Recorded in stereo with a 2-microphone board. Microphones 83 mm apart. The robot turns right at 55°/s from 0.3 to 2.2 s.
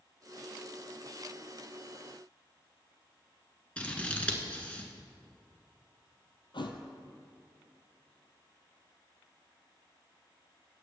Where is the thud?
70° left (ahead or behind), 1.1 m.